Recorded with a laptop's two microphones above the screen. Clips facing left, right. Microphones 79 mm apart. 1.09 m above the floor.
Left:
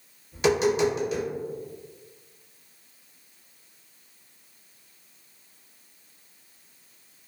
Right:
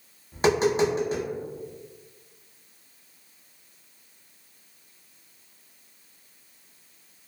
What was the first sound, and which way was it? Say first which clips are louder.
Tapping: even; 35° right (ahead or behind).